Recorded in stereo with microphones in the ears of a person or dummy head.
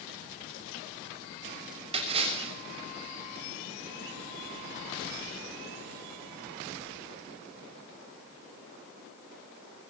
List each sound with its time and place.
1.9 s a splash: 35° right (ahead or behind), 6.5 m